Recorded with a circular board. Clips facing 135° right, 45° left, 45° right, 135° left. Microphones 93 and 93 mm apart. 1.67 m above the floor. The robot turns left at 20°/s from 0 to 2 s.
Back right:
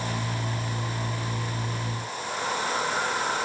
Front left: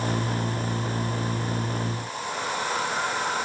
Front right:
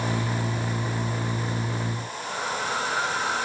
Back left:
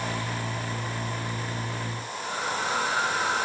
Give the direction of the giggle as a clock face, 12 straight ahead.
No giggle in this recording.